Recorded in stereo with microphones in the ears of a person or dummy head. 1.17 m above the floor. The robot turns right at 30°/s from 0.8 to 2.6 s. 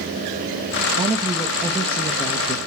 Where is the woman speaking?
20° right, 1.2 m; by 2.6 s 30° left, 1.2 m.